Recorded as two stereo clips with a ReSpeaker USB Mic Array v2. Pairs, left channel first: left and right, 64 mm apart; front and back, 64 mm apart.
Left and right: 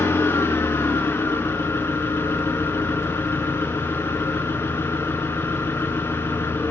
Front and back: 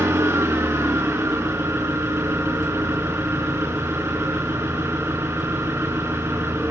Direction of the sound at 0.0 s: 135° left.